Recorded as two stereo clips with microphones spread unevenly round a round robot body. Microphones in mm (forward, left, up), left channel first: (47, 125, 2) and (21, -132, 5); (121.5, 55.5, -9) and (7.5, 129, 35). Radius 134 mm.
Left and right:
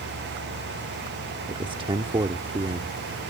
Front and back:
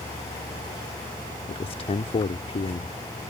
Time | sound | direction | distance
1.5 | a man speaking | 25° right | ?